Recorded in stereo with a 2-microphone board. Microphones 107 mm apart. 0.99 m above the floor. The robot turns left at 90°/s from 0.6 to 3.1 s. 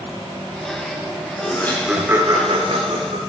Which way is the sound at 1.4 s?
40° left (ahead or behind).